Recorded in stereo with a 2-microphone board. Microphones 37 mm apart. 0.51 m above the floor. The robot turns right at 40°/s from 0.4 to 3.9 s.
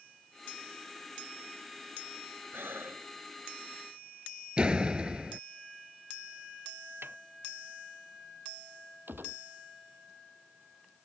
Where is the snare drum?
80° right.